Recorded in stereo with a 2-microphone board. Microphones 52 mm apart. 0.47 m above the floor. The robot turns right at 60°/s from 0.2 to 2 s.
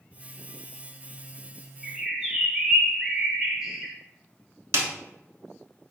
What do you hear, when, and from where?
1.8 s a bird: centre (ahead or behind), 0.6 m; by 3.9 s 10° right (ahead or behind), 0.6 m
4.7 s a snare drum: 65° right (ahead or behind), 0.7 m